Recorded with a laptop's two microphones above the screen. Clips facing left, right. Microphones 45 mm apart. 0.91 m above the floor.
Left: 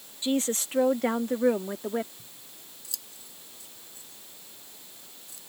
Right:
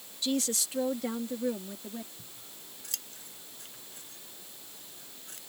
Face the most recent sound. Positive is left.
turn(degrees=-55)  # may be behind; listen again after turning